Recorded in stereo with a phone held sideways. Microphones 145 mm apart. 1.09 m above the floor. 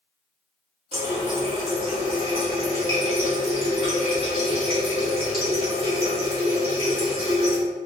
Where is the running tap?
40° right (ahead or behind), 1.8 m.